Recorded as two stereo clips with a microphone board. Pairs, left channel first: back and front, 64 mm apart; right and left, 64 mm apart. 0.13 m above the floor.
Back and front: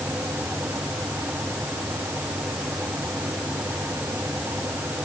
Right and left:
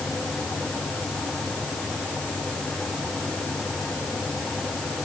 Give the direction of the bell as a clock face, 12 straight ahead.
No bell in this recording.